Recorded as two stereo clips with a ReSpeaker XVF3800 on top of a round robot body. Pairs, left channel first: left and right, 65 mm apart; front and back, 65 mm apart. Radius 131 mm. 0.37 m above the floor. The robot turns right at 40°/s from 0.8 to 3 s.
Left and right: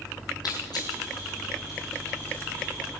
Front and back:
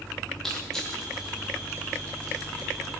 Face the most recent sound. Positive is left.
turn(degrees=175)